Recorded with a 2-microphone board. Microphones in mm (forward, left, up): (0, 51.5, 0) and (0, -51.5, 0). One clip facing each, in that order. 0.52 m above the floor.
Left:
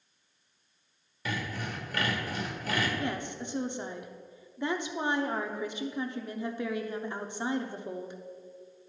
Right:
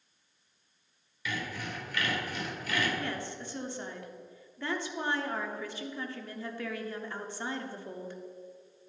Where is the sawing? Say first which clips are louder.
Left 2 dB; 40° left (ahead or behind), 1.6 m.